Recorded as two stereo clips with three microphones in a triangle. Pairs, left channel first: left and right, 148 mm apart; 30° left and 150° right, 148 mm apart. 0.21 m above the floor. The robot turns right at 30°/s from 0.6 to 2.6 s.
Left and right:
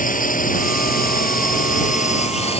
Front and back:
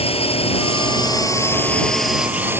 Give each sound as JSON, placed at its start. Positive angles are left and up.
{"t": 0.0, "sound": "a drone", "azimuth_deg": 75}